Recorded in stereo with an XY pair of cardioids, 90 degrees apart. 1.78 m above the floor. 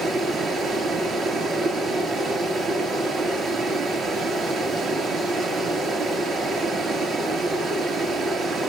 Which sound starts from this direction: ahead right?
Running water, at 0.0 s.